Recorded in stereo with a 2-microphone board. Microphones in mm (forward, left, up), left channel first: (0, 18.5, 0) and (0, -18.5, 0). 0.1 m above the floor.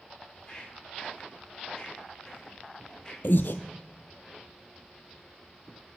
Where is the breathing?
65° left (ahead or behind), 0.6 m.